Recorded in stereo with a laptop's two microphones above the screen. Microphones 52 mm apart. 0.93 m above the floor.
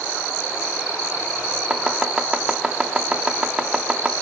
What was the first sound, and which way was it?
Chopping, 15° right (ahead or behind).